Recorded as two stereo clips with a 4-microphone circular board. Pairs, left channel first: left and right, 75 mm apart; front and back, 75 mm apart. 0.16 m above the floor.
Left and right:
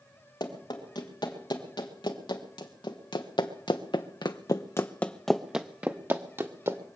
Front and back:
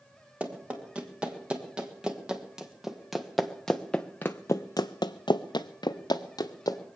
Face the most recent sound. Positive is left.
turn(degrees=-35)